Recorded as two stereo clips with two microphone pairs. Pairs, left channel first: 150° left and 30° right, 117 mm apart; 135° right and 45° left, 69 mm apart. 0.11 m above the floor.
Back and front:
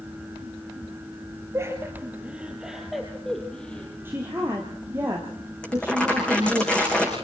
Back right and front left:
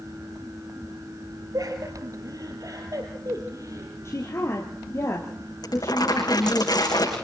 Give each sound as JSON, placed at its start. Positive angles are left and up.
{"t": 1.5, "sound": "laughter", "azimuth_deg": 35, "distance_m": 3.0}
{"t": 4.0, "sound": "a woman speaking", "azimuth_deg": -95, "distance_m": 3.0}
{"t": 5.6, "sound": "crumpling", "azimuth_deg": -125, "distance_m": 7.5}